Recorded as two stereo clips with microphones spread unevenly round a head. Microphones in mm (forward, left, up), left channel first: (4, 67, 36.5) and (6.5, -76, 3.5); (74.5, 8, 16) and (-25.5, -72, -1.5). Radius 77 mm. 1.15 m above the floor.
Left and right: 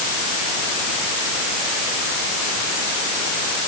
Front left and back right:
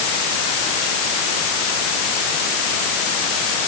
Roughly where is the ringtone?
No ringtone in this recording.